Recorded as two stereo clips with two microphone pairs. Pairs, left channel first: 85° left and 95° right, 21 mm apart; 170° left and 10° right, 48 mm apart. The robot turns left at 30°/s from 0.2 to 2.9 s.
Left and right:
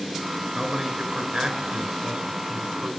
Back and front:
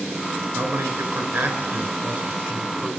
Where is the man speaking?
15° right, 4.5 m; by 2.9 s 85° right, 4.5 m.